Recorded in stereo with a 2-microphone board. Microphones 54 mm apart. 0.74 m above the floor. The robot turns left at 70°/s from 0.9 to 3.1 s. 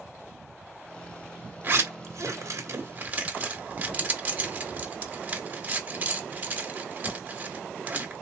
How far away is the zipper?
About 1.2 m.